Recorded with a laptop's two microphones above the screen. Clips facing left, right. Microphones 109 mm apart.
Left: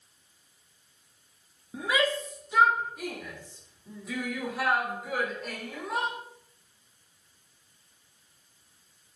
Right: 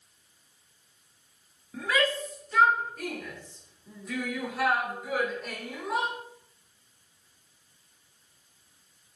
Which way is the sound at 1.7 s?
15° left (ahead or behind).